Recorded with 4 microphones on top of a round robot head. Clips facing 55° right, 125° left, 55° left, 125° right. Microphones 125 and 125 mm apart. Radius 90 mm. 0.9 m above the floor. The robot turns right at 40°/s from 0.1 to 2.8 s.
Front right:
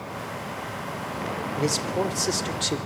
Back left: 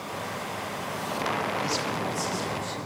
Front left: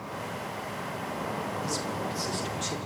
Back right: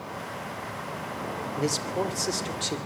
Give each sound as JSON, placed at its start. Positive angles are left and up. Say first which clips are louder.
{"t": 1.6, "sound": "a man speaking", "louder": "front right 4 dB, back right 4 dB", "azimuth_deg": -105, "distance_m": 3.0}